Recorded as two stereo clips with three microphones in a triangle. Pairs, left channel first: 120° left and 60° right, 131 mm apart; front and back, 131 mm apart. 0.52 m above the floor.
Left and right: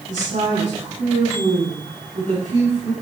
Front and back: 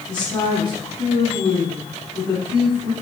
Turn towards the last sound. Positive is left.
turn(degrees=-50)